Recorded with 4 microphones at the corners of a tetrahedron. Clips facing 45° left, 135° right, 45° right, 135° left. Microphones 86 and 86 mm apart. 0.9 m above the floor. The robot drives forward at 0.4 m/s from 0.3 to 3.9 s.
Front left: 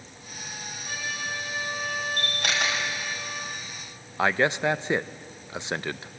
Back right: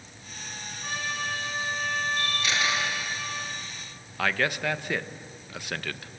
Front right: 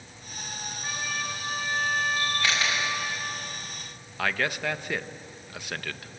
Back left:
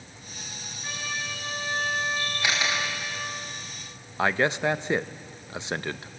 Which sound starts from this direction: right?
A trumpet, at 0.8 s.